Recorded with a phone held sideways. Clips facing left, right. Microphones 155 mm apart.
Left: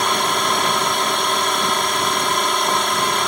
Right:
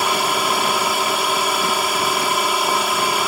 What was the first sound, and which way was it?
A drone, 5° right (ahead or behind).